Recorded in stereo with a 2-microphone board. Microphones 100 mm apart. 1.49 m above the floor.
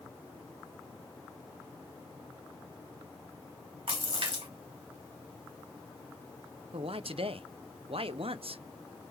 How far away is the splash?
About 3.5 m.